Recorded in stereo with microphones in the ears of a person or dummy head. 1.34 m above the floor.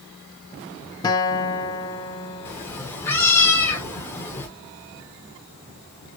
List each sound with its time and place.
1.0 s a guitar: 20° left (ahead or behind), 0.7 m
2.5 s a cat meowing: 15° left (ahead or behind), 1.0 m